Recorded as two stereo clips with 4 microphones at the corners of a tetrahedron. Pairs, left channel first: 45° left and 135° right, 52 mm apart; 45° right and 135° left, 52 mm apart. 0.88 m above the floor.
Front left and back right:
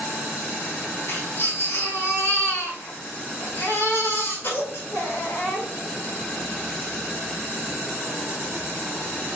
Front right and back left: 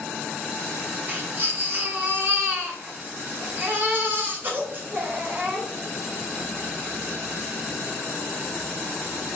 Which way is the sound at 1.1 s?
85° left.